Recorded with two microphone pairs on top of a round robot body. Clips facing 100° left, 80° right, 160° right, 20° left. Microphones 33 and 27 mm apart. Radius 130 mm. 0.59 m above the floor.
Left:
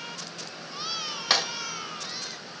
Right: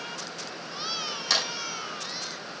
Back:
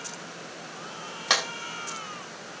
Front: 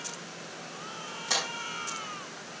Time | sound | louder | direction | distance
1.3 | a clap | left 2 dB, back 6 dB | 170° left | 2.5 m